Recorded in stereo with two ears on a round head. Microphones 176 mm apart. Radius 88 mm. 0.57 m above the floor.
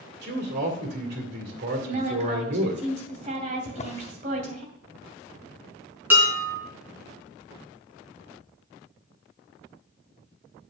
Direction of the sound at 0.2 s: 55° right (ahead or behind).